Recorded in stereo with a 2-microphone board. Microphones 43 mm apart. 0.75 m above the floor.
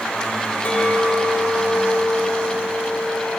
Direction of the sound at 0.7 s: 35° left (ahead or behind).